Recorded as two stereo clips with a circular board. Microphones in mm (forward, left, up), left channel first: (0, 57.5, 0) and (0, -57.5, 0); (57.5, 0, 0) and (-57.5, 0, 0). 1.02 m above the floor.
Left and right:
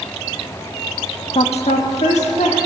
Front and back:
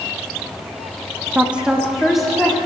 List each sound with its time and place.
1.4 s a woman speaking: 105° left, 0.8 m; by 2.6 s 90° left, 2.5 m